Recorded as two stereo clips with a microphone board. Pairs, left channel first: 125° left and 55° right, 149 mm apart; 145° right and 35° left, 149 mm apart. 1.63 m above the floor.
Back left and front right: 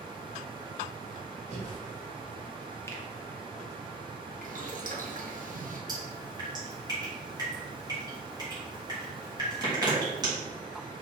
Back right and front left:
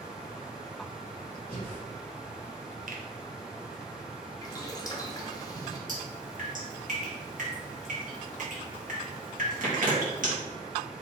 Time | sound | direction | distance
1.5 | breathing | 20° right | 1.7 m
2.9 | a finger snap | 55° left | 0.7 m
4.4 | boiling | 80° right | 0.8 m
5.9 | dripping | 10° left | 1.5 m